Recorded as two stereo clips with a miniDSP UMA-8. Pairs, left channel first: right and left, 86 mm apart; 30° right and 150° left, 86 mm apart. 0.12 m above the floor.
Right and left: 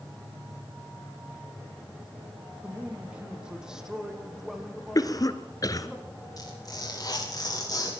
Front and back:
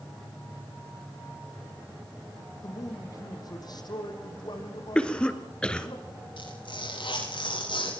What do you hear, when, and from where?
2.6 s a man speaking: 15° left, 4 m; by 6.0 s straight ahead, 7 m
5.0 s a cough: 105° right, 2.0 m
6.4 s tearing paper: 45° right, 9 m